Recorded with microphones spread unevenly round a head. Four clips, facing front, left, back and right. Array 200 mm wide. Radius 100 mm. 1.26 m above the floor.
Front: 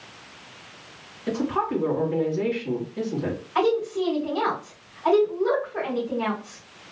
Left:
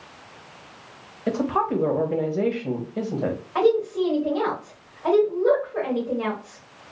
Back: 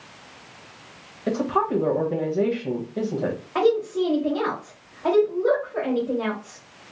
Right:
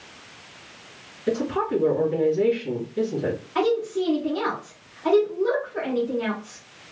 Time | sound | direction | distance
1.3 | a woman speaking | 135° left | 1.4 m
3.5 | a woman speaking | 155° left | 2.5 m